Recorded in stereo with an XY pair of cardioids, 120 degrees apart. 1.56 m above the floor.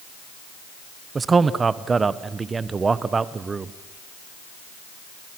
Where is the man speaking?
25° right, 1.0 m.